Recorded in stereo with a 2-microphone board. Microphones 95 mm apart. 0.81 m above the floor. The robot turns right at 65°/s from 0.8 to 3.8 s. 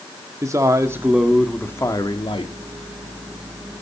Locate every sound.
0.4 s a man speaking: 35° right, 1.6 m; by 2.5 s 75° left, 1.6 m